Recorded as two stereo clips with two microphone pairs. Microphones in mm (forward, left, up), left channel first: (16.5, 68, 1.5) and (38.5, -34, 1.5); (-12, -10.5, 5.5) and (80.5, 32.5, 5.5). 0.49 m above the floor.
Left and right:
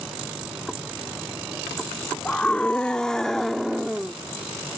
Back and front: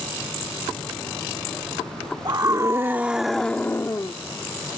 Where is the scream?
30° left; by 4.1 s 160° right.